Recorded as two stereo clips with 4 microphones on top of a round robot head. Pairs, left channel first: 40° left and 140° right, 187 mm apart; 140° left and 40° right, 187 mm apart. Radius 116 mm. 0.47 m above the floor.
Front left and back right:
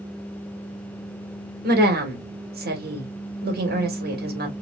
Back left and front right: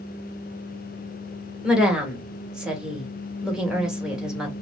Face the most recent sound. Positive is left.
turn(degrees=-125)